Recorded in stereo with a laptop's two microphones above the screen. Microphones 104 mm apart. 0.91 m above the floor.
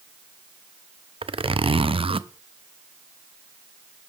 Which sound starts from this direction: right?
A zipper, at 1.2 s.